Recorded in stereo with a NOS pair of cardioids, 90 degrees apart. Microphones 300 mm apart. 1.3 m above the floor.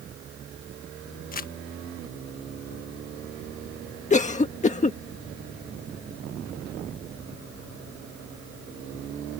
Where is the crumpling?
30° left.